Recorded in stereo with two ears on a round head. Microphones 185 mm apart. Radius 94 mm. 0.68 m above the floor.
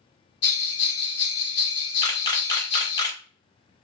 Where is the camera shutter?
20° left (ahead or behind), 0.6 m.